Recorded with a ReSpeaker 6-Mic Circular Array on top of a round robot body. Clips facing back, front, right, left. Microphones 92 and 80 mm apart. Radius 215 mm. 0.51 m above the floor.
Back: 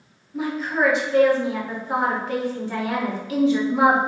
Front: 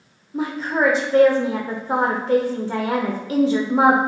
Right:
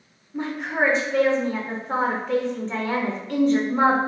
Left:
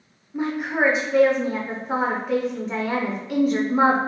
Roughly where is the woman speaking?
Ahead.